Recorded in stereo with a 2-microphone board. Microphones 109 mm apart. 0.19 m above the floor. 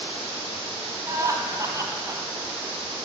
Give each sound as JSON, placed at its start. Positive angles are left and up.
{"t": 1.1, "sound": "laughter", "side_deg": -30, "distance_m": 1.3}